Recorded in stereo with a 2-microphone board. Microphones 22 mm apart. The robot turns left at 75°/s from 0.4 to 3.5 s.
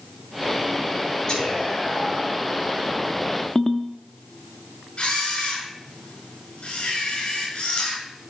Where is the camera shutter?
70° left (ahead or behind), 5.5 m.